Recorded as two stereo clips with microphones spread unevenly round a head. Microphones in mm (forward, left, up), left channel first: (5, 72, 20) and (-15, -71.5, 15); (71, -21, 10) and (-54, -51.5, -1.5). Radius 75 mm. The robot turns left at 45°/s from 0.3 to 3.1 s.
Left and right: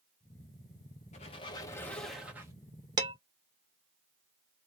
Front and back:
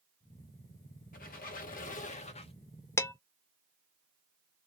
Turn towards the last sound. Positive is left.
turn(degrees=-50)